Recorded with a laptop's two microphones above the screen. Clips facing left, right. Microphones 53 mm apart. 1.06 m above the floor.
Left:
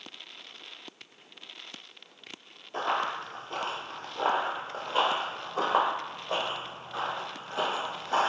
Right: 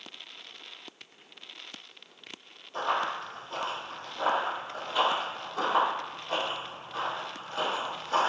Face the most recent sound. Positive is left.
turn(degrees=25)  # may be behind; listen again after turning